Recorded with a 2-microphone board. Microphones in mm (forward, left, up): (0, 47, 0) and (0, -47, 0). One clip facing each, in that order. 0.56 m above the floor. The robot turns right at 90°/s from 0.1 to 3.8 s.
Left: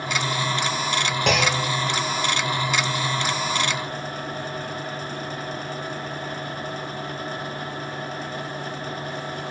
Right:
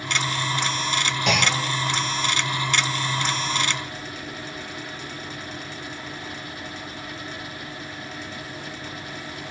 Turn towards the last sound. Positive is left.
turn(degrees=-10)